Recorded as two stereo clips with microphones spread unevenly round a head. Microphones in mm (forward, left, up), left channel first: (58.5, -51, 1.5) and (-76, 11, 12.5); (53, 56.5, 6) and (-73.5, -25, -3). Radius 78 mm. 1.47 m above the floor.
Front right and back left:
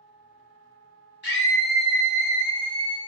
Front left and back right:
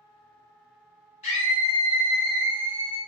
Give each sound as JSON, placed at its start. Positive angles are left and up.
{"t": 1.2, "sound": "a scream", "azimuth_deg": -15, "distance_m": 1.3}